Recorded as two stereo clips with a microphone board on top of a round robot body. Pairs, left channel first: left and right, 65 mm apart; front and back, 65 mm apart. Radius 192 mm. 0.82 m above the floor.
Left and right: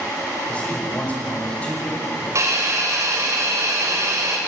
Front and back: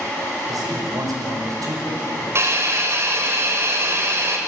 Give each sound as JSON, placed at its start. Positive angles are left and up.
{"t": 0.5, "sound": "a man speaking", "azimuth_deg": 160, "distance_m": 5.0}
{"t": 2.4, "sound": "a hiss", "azimuth_deg": -135, "distance_m": 3.0}